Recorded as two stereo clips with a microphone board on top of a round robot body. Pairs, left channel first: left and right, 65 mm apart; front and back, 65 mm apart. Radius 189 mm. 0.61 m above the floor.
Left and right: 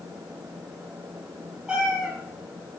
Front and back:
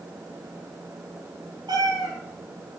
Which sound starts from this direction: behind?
A cat meowing, at 1.7 s.